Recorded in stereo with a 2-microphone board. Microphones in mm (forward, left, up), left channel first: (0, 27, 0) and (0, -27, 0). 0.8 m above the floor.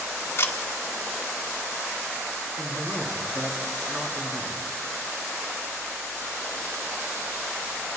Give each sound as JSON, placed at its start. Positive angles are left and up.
{"t": 0.4, "sound": "a camera shutter", "side_deg": 50, "distance_m": 1.5}
{"t": 2.6, "sound": "a man speaking", "side_deg": -35, "distance_m": 1.8}